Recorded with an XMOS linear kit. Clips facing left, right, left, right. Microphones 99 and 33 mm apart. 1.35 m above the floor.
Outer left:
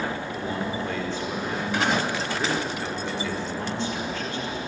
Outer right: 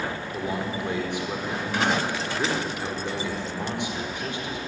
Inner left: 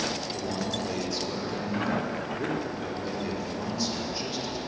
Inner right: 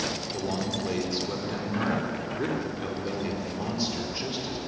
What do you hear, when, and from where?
0.3 s a man speaking: 15° right (ahead or behind), 5 m